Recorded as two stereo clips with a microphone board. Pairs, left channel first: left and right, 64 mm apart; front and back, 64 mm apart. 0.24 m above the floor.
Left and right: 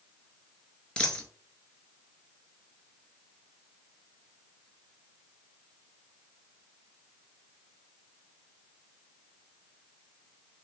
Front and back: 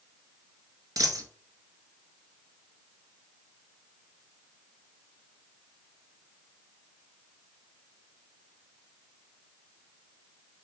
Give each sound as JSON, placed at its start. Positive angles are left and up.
{"t": 1.0, "sound": "a dropped coin", "azimuth_deg": 165, "distance_m": 0.8}